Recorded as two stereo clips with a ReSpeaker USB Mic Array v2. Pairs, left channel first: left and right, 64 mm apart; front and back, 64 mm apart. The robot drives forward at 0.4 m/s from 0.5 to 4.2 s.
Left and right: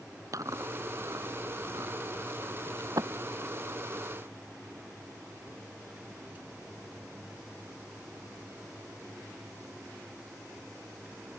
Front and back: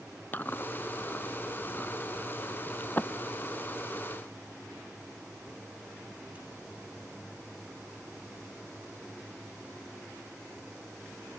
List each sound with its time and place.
0.3 s chewing: 60° right; by 3.1 s 65° right